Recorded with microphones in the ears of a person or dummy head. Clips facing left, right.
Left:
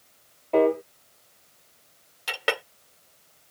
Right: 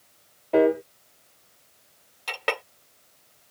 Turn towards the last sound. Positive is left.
turn(degrees=10)  # may be behind; listen again after turning